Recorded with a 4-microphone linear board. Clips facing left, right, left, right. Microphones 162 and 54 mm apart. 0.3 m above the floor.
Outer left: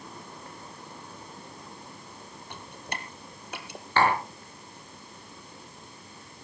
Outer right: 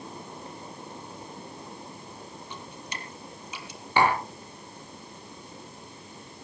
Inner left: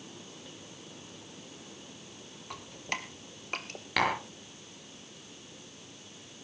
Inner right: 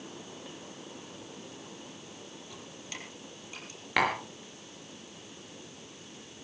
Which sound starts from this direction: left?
Dripping, at 2.5 s.